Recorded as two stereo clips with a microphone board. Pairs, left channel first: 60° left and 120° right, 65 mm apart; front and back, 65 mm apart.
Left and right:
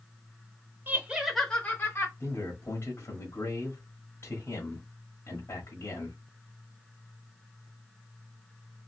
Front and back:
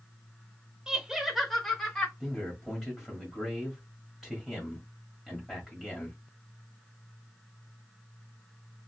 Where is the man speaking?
95° left, 1.4 m.